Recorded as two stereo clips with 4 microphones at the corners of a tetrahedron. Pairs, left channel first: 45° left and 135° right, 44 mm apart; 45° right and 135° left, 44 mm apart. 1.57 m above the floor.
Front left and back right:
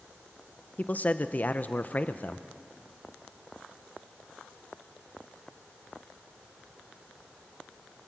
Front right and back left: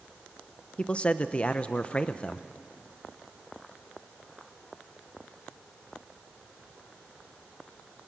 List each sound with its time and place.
0.8 s a man speaking: 10° left, 0.7 m